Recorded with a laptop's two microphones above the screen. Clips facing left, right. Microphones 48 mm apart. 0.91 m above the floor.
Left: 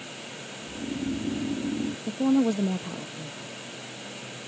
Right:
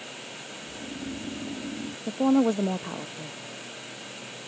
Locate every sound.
0.6 s snoring: 40° left (ahead or behind)
2.1 s a woman speaking: 30° right (ahead or behind)